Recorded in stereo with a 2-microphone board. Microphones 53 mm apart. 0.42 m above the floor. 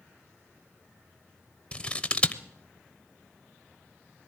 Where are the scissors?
25° left (ahead or behind), 0.9 m.